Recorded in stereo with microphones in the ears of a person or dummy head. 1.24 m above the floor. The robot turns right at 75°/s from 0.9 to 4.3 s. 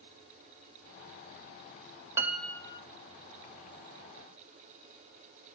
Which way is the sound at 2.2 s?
15° right.